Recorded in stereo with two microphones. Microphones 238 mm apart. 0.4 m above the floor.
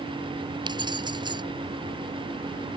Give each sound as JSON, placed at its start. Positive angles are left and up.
{"t": 0.7, "sound": "keys jangling", "side_deg": -20}